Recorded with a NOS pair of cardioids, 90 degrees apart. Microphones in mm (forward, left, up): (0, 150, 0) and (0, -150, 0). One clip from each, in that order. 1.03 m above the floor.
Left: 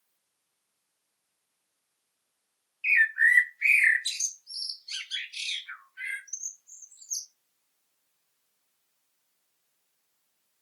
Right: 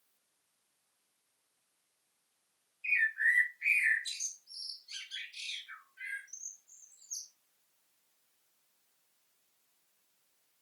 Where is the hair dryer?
I don't hear a hair dryer.